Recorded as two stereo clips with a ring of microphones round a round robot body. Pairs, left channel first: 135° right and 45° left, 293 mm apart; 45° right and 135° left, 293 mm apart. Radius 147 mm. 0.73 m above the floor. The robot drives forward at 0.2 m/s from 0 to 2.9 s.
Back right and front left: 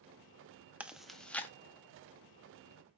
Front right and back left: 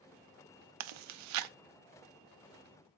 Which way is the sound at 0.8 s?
130° left.